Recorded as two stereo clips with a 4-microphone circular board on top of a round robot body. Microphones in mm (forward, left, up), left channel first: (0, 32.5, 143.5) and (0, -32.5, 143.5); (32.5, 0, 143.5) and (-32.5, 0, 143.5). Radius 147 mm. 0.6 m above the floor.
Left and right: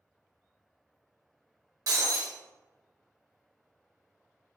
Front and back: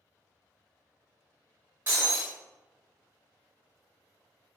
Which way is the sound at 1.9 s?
115° right.